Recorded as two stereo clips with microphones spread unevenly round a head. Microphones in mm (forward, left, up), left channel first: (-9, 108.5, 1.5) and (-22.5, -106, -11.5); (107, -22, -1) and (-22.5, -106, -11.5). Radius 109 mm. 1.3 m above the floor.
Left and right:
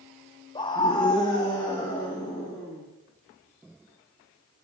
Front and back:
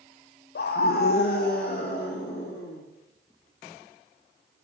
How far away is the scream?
About 0.7 m.